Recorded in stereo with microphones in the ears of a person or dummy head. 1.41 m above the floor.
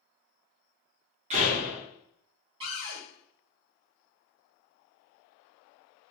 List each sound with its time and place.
1.3 s a door slam: 40° right (ahead or behind), 0.9 m
2.6 s a cupboard door: 35° right (ahead or behind), 1.1 m